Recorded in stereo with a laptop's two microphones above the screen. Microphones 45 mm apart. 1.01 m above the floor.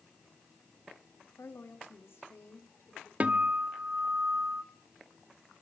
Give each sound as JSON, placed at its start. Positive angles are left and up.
{"t": 1.4, "sound": "a woman speaking", "side_deg": 65, "distance_m": 2.0}
{"t": 3.2, "sound": "a guitar", "side_deg": -35, "distance_m": 1.5}